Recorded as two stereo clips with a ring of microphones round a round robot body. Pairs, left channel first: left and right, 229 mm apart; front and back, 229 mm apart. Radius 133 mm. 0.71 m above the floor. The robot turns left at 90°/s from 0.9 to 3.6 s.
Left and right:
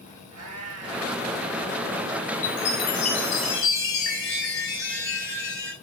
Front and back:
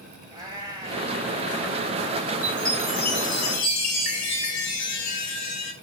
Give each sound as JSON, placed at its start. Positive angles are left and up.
{"t": 0.3, "sound": "a cat meowing", "azimuth_deg": -105, "distance_m": 5.0}
{"t": 2.4, "sound": "a chime", "azimuth_deg": 115, "distance_m": 5.0}